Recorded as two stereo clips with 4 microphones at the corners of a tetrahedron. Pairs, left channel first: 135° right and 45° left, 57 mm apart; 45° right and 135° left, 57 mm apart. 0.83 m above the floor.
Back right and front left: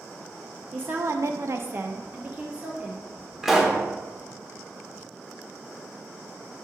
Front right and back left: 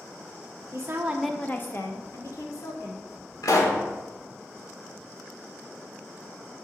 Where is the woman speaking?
105° left, 0.7 m; by 3.1 s 25° right, 2 m.